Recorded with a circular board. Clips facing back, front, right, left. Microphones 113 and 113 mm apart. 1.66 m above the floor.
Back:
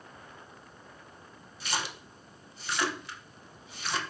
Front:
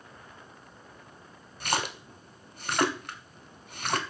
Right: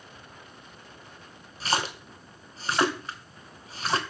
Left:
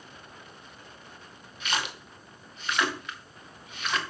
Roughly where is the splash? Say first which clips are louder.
Front 5 dB, right 4 dB; ahead right.